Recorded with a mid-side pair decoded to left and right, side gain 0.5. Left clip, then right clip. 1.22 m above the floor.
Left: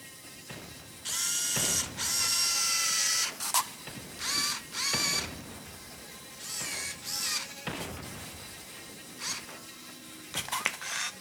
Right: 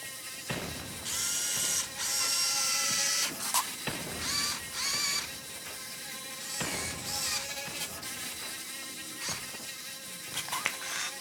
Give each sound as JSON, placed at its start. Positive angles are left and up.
{"t": 0.0, "sound": "an insect", "azimuth_deg": -45, "distance_m": 0.8}
{"t": 1.1, "sound": "a camera shutter", "azimuth_deg": 10, "distance_m": 0.8}